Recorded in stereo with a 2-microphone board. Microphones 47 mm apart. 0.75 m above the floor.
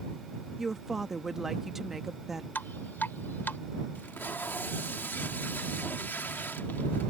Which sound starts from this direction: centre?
A woman speaking, at 0.6 s.